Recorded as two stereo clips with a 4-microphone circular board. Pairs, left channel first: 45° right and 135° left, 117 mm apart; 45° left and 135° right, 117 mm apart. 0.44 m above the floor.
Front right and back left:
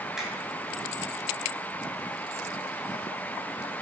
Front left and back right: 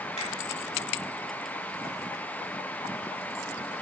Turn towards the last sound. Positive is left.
turn(degrees=50)